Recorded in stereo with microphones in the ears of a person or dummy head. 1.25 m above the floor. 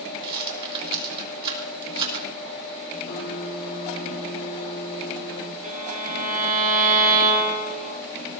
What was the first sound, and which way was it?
A rattle, 30° right (ahead or behind).